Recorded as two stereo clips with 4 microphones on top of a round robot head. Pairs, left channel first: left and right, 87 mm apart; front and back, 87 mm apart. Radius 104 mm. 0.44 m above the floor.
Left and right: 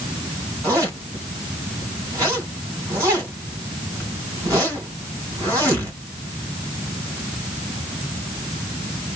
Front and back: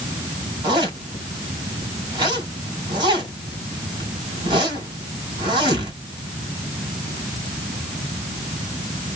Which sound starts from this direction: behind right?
A zipper, at 0.6 s.